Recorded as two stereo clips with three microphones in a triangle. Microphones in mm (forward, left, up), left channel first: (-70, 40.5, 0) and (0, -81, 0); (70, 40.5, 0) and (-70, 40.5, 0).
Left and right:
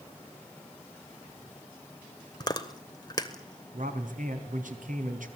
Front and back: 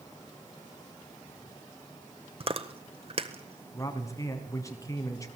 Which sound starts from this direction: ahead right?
A man speaking, at 3.7 s.